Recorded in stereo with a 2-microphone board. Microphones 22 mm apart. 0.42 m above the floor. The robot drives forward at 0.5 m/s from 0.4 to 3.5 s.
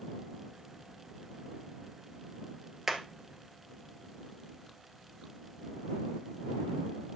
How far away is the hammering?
About 1.7 m.